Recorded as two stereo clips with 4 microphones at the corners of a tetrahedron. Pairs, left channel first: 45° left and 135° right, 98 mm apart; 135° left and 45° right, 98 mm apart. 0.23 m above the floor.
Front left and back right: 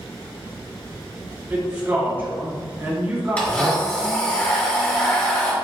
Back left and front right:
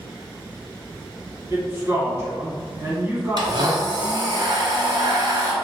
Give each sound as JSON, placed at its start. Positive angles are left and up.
{"t": 1.5, "sound": "a man speaking", "azimuth_deg": -80, "distance_m": 1.5}
{"t": 3.4, "sound": "a blender", "azimuth_deg": -30, "distance_m": 1.1}